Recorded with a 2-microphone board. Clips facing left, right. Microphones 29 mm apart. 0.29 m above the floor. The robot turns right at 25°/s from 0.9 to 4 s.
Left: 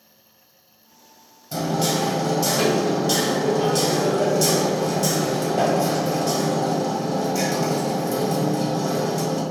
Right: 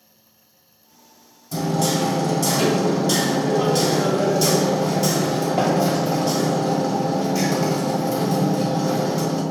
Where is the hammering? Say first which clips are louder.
Right 1 dB; 135° left, 1.6 m; by 9.4 s 160° right, 1.6 m.